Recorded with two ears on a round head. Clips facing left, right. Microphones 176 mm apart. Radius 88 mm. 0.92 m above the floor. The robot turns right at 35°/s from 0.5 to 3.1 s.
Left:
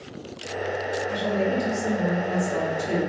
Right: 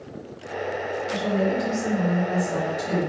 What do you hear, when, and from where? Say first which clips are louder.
1.1 s a woman speaking: right 2 dB; straight behind, 1.7 m; by 3.1 s 105° right, 1.7 m